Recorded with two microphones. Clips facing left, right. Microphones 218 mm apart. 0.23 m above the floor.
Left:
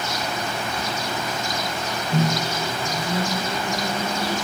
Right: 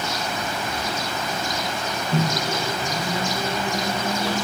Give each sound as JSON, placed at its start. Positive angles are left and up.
{"t": 2.1, "sound": "a microwave", "side_deg": 15, "distance_m": 2.0}